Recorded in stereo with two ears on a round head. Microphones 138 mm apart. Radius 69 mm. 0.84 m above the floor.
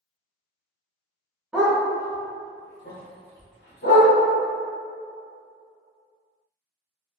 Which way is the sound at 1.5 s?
5° right (ahead or behind).